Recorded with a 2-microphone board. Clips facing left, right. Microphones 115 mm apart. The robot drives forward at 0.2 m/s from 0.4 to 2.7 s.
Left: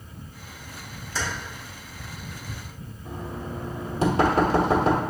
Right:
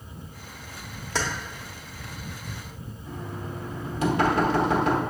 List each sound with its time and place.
1.1 s keys jangling: 70° right (ahead or behind), 0.8 m
3.0 s knocking: 30° left (ahead or behind), 1.1 m